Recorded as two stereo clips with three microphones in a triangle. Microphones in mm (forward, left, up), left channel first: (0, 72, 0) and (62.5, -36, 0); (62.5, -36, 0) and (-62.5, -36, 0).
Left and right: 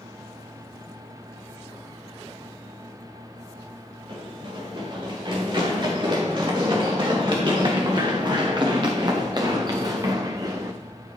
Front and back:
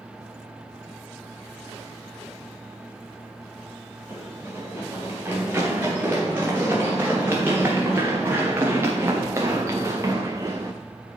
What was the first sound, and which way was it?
Running footsteps, 105° right.